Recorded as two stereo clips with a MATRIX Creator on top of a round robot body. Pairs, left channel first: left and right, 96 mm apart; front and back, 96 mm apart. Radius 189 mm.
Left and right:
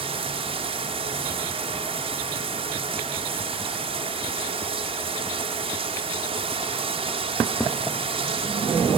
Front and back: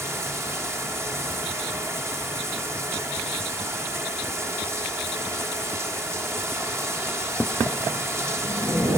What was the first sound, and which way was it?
Running water, 115° right.